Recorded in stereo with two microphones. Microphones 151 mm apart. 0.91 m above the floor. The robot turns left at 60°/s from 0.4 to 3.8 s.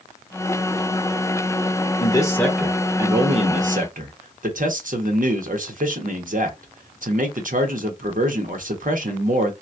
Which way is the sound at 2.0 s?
35° left.